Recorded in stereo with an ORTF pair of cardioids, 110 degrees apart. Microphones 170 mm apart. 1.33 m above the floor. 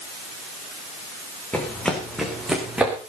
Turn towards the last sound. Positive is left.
turn(degrees=-10)